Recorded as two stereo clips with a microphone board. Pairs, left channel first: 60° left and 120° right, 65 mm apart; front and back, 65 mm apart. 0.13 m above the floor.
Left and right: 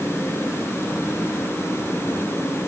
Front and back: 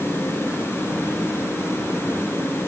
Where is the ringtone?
No ringtone in this recording.